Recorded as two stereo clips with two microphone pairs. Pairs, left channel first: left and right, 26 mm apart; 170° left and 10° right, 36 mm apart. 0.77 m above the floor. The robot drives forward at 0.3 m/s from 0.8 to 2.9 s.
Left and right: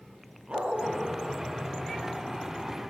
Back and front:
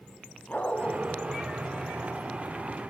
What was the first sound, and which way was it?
A dog barking, 135° right.